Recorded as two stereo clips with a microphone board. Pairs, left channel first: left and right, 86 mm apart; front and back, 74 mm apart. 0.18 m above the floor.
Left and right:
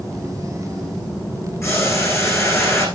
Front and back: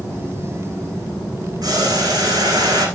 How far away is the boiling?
About 9.5 m.